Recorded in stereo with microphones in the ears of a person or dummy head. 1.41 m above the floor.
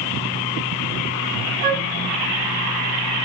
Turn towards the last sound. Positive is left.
turn(degrees=-40)  # may be behind; listen again after turning